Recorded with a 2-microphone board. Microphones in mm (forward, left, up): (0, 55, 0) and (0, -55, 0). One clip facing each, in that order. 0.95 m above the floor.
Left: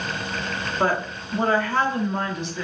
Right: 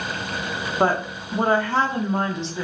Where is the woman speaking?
30° right (ahead or behind), 0.8 m.